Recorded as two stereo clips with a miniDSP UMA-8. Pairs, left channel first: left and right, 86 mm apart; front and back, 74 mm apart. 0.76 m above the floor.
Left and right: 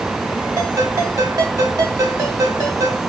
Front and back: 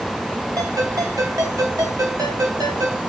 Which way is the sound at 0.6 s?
140° right.